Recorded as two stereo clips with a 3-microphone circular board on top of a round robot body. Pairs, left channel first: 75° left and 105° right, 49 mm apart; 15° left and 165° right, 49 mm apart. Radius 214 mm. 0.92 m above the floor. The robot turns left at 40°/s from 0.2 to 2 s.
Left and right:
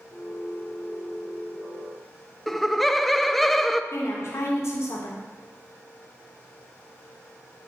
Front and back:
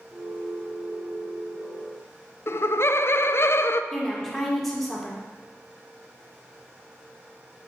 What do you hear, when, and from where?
2.5 s laughter: 10° right, 0.5 m
3.9 s a woman speaking: 105° left, 1.6 m